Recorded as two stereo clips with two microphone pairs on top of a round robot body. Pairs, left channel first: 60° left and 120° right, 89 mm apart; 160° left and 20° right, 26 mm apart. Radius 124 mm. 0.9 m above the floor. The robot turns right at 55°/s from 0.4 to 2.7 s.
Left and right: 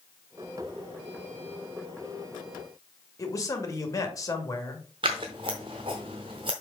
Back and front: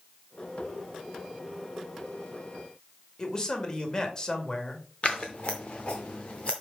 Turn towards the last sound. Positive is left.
turn(degrees=-135)